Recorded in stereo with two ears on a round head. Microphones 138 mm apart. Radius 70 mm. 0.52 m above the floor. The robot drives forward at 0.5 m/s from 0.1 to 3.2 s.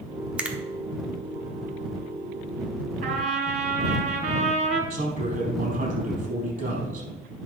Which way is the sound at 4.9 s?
55° right (ahead or behind).